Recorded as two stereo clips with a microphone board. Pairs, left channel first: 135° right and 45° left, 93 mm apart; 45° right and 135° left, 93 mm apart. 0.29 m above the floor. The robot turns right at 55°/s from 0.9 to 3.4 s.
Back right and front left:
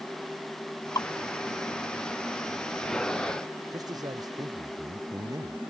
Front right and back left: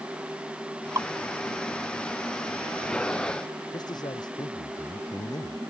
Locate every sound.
0.9 s dripping: straight behind; by 1.1 s 170° right
3.7 s a man speaking: 5° right